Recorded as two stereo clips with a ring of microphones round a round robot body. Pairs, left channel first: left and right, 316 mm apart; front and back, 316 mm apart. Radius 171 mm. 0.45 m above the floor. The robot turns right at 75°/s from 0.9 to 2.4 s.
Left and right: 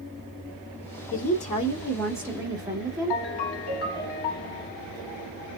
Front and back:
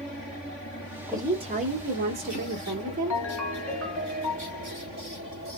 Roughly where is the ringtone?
Left.